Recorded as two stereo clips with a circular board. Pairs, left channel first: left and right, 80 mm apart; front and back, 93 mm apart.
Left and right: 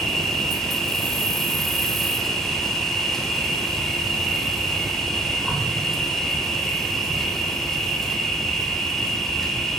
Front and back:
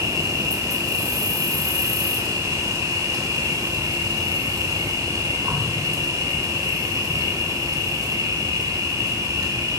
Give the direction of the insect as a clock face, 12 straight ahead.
6 o'clock.